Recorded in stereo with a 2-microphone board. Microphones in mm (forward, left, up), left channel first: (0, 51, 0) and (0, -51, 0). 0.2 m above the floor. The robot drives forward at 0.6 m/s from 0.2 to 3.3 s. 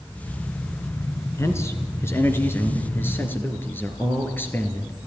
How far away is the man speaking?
About 3 m.